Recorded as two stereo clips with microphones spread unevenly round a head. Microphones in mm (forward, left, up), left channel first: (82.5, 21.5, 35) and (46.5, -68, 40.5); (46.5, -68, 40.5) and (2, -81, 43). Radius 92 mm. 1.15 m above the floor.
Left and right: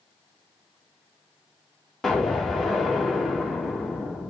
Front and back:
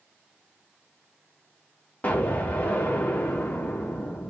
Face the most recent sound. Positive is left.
turn(degrees=-20)